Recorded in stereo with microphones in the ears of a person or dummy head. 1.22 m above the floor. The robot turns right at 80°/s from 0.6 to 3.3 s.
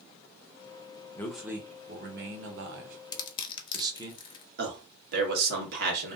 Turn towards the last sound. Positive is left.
turn(degrees=-60)  # may be behind; listen again after turning